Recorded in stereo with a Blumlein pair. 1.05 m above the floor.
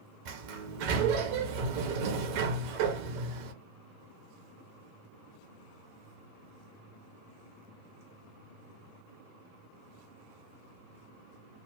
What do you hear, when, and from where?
0.2 s a sliding door: 45° right, 1.0 m